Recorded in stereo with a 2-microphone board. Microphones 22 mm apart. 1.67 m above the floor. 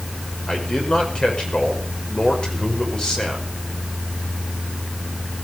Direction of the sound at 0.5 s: 40° left (ahead or behind).